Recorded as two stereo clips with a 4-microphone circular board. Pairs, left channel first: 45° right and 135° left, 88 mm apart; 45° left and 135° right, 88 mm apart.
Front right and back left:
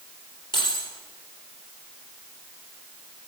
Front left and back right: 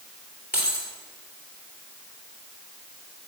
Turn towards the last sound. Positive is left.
turn(degrees=-65)